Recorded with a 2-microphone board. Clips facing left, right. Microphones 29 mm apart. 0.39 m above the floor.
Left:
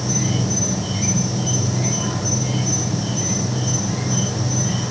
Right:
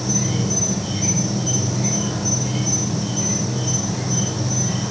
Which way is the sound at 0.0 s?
35° left (ahead or behind).